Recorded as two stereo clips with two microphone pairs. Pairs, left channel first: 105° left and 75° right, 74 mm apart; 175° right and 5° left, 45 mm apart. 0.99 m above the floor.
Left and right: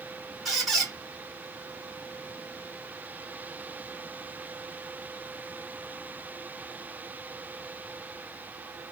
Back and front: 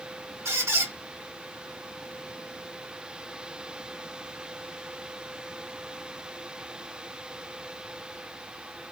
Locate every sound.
0.5 s a squeak: 15° left, 1.8 m